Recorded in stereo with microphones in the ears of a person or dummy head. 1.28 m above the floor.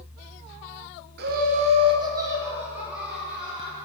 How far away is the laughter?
About 0.7 m.